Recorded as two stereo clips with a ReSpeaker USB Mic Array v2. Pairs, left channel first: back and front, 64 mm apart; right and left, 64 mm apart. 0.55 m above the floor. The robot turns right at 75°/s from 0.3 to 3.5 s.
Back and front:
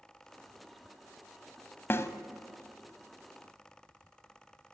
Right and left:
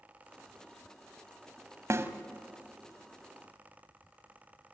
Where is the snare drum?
130° left, 1.0 m; by 2.1 s 145° left, 1.0 m.